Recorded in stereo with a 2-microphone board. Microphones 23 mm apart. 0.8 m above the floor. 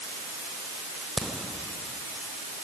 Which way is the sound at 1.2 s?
25° left (ahead or behind).